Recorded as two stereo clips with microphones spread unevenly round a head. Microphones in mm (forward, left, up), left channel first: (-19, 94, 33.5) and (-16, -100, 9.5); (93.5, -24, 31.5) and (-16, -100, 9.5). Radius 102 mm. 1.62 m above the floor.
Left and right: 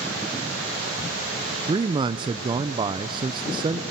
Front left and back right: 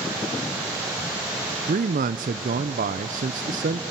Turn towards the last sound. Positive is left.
turn(degrees=-155)